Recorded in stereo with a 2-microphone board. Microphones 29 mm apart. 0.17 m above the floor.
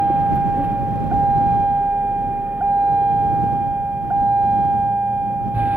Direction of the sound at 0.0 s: 80° right.